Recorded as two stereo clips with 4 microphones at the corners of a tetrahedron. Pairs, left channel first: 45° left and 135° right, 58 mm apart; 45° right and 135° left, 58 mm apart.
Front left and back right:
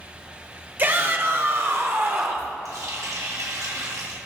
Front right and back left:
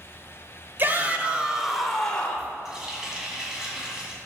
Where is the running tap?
150° right, 2.5 m.